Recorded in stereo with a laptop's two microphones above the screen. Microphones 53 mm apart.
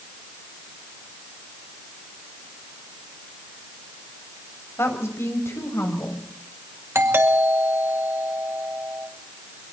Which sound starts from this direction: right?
A doorbell, at 7.0 s.